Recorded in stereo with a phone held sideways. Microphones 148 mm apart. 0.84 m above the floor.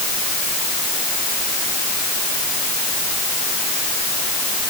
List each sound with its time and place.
Only background noise.